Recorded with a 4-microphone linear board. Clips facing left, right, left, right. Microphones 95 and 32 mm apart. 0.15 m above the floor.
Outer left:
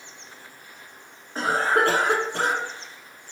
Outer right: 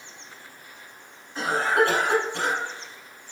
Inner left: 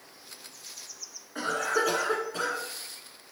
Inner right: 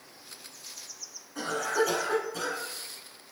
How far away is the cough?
About 1.5 m.